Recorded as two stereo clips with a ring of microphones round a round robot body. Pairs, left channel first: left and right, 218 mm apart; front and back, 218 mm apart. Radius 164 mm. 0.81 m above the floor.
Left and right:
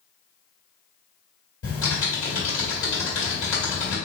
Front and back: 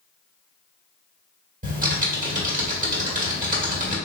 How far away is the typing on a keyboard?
About 1.8 m.